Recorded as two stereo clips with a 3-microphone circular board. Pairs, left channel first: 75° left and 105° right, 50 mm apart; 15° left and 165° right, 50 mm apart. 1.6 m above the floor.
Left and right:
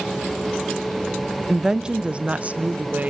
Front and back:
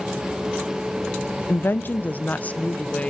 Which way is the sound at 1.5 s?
15° right.